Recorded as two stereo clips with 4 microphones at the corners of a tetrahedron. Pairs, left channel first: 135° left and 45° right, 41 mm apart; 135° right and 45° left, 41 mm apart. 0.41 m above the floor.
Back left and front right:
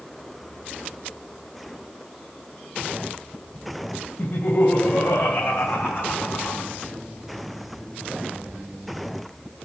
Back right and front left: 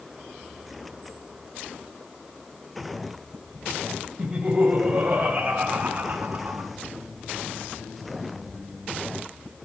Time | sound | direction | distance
4.2 | laughter | 100° left | 2.5 m